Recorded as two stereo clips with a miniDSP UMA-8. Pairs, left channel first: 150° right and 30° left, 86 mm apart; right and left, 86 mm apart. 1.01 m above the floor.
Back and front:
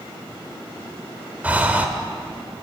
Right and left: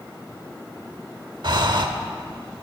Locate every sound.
1.4 s breathing: 100° left, 1.0 m